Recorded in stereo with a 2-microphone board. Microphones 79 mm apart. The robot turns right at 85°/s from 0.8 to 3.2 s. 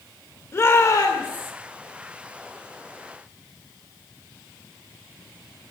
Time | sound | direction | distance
0.5 | a shout | 40° left | 2 m